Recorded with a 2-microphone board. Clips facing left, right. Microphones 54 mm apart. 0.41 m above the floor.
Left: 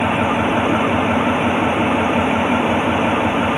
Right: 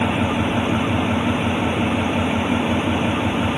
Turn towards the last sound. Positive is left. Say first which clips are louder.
# left 3 dB
turn(degrees=30)  # may be behind; listen again after turning